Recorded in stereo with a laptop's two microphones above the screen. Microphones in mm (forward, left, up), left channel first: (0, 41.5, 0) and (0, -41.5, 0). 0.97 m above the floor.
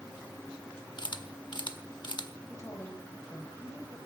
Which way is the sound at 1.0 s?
65° left (ahead or behind).